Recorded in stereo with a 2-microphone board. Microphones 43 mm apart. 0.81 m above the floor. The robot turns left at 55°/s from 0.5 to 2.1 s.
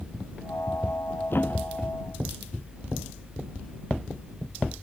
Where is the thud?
60° left; by 1.9 s 25° left.